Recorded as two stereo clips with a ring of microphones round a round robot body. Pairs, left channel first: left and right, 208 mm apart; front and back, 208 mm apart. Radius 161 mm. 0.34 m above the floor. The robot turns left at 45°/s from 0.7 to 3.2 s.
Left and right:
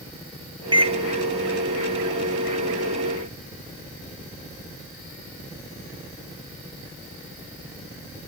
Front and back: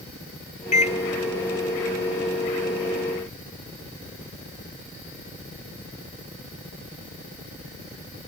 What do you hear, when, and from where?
0.7 s a microwave: 35° right, 1.0 m; by 1.0 s 45° right, 1.0 m